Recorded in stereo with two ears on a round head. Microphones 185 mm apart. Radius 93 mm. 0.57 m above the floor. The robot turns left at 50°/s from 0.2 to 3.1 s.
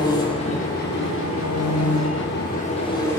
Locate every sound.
0.0 s an engine running: 160° left, 6.5 m; by 3.2 s 15° left, 6.5 m